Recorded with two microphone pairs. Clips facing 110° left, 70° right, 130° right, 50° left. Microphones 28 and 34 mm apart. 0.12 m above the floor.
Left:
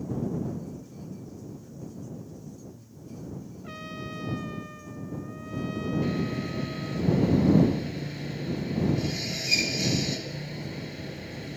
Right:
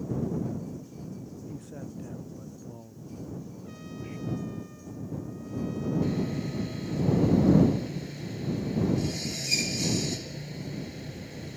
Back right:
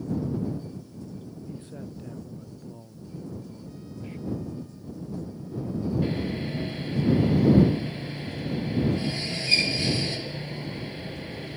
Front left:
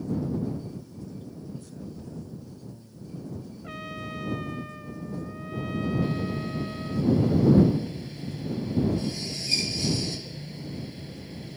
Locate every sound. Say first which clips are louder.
1.5 s a man speaking: right 2 dB, back right 1 dB; 75° right; by 4.2 s 90° right
3.6 s a trumpet: left 3 dB, front left 4 dB; 60° left
6.0 s sawing: left 1 dB, back right 1 dB; 175° left